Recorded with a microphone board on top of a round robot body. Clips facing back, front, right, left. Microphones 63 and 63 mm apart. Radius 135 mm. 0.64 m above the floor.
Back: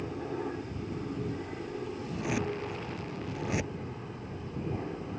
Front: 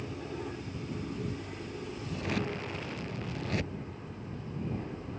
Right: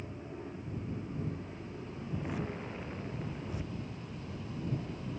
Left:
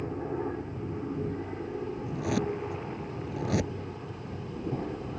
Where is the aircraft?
110° left.